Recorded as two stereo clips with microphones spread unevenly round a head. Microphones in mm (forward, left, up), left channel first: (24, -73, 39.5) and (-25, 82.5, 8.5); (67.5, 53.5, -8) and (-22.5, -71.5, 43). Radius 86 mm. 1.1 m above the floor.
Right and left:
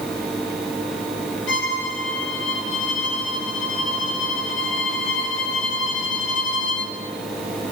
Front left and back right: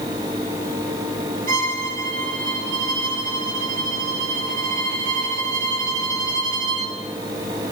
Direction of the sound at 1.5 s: 90° right.